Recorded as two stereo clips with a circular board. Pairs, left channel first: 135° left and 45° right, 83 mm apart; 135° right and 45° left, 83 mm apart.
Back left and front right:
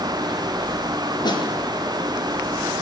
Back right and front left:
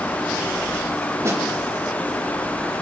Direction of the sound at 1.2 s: 100° left.